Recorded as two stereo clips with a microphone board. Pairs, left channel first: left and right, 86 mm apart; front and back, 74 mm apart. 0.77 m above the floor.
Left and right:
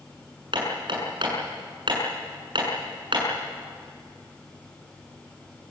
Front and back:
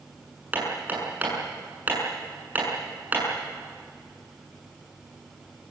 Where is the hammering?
115° right, 7.5 m.